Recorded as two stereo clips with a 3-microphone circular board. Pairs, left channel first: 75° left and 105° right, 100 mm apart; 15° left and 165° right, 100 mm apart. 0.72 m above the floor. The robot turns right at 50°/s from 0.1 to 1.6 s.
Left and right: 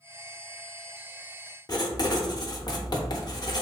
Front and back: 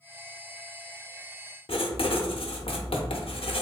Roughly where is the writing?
Ahead left.